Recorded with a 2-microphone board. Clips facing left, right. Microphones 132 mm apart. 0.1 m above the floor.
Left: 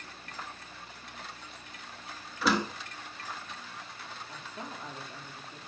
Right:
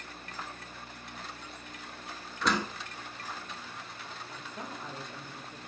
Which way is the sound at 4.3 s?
20° right (ahead or behind).